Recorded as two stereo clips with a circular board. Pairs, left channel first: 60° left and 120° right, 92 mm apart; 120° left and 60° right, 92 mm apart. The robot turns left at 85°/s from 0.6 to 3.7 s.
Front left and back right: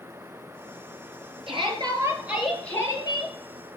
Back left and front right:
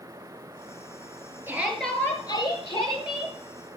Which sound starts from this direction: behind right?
A shout, at 1.5 s.